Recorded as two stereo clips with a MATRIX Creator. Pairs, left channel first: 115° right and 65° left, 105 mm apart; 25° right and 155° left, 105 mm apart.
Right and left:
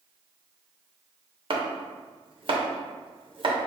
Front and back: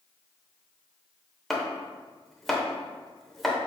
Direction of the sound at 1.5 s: 65° left.